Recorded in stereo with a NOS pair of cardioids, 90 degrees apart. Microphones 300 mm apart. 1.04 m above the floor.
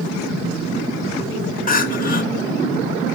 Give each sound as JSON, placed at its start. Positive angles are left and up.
{"t": 1.7, "sound": "crying", "azimuth_deg": 30, "distance_m": 1.5}